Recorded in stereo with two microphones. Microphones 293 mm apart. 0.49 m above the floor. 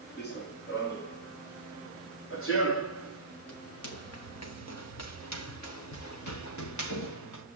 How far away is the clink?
I don't hear a clink.